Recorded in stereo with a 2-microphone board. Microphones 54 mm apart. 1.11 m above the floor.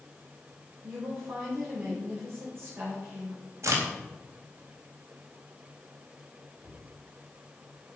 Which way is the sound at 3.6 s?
60° right (ahead or behind).